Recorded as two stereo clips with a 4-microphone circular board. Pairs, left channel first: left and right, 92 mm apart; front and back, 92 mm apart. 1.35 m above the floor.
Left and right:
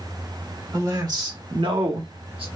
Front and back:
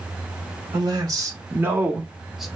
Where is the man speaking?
140° right, 1.1 m; by 2.5 s 90° right, 1.0 m.